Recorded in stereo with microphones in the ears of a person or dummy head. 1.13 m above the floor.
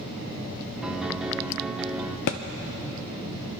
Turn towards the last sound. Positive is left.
turn(degrees=40)  # may be behind; listen again after turning